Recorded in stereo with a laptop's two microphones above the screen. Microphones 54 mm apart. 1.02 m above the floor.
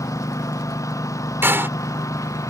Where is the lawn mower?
75° left (ahead or behind).